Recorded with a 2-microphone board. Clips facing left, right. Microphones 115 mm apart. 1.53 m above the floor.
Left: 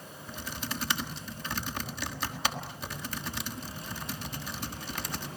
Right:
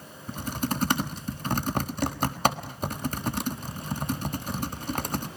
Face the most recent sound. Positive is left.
turn(degrees=-45)  # may be behind; listen again after turning